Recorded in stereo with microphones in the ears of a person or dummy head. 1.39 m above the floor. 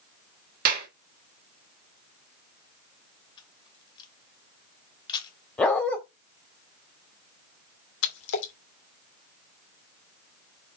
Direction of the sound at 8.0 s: 80° left.